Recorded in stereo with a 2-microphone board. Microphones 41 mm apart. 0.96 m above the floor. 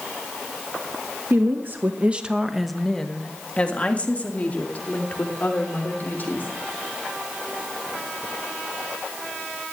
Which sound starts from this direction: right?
A woman speaking, at 1.3 s.